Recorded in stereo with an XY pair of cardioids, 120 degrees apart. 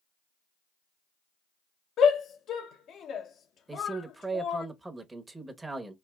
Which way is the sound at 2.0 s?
60° left.